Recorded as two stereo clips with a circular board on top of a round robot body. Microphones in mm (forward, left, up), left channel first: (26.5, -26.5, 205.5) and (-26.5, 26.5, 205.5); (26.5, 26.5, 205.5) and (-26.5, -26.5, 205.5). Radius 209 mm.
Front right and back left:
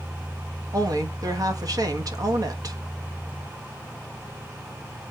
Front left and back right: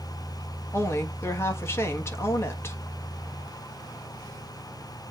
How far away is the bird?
I don't hear a bird.